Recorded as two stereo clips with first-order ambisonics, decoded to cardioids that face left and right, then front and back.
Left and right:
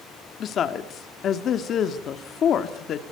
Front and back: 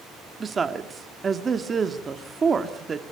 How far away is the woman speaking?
About 1.1 m.